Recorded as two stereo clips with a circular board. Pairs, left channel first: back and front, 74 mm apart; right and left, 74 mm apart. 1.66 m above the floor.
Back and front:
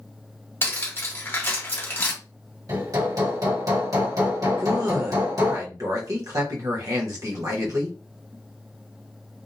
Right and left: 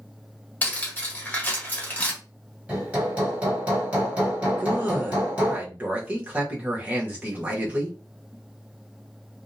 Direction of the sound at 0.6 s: 145° right.